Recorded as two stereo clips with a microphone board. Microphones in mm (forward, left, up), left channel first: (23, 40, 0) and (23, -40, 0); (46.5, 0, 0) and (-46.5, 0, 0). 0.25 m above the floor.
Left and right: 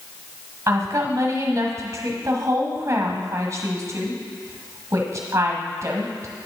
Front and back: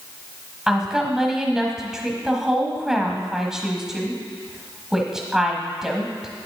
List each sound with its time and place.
0.7 s a woman speaking: 100° right, 1.1 m